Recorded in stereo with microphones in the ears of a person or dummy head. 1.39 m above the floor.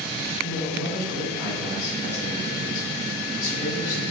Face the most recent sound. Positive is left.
turn(degrees=15)  # may be behind; listen again after turning